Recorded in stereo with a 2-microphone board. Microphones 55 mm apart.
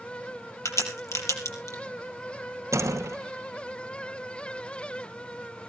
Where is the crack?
70° left (ahead or behind), 4 m.